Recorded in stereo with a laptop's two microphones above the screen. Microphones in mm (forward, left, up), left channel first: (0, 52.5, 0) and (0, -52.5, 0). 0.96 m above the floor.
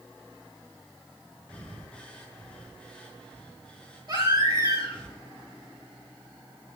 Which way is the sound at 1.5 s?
10° left (ahead or behind).